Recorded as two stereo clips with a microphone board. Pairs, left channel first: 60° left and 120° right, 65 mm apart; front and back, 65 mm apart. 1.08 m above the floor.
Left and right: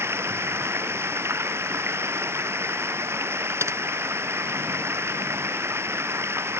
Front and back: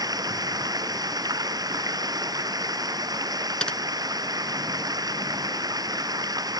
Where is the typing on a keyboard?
75° right.